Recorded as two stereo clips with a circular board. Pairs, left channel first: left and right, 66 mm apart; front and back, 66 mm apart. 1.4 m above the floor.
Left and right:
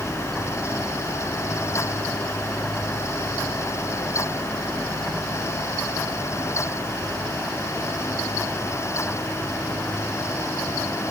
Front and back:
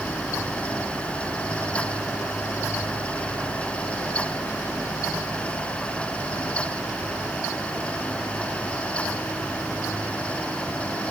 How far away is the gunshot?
I don't hear a gunshot.